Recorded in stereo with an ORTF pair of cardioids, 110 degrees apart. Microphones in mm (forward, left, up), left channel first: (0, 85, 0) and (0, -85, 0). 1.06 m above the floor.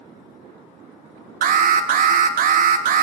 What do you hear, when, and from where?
1.4 s an alarm: 55° right, 0.8 m